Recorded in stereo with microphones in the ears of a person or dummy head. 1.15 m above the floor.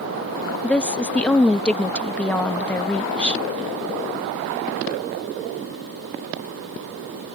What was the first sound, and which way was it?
A woman speaking, centre (ahead or behind).